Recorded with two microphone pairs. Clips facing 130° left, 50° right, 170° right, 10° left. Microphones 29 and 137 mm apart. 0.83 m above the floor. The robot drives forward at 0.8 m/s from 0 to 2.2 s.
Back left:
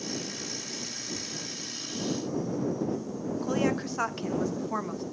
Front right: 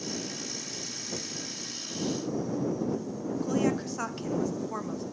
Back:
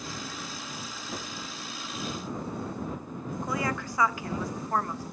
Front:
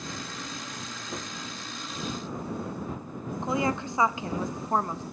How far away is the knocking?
About 0.7 m.